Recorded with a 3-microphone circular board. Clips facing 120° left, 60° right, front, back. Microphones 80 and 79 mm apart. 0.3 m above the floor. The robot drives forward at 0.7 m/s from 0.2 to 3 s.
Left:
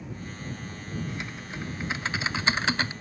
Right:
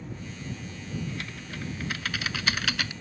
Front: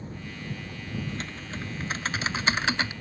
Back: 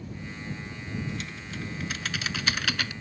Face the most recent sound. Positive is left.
turn(degrees=65)